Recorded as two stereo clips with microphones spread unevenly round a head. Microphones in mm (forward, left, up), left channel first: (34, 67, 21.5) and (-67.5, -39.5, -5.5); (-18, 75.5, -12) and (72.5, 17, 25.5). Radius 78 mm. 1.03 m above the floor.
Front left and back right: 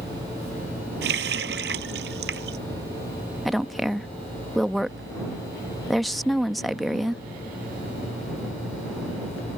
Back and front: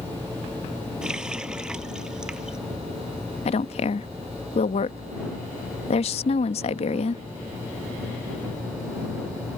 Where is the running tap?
115° right.